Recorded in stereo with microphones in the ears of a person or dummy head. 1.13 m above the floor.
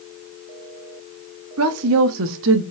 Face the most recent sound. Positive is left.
turn(degrees=-65)  # may be behind; listen again after turning